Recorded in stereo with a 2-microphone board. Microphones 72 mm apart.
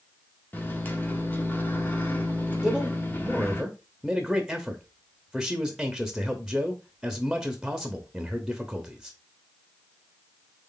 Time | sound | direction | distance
0.5 | a microwave | 25° left (ahead or behind) | 0.9 m
2.6 | a man speaking | 5° right (ahead or behind) | 0.8 m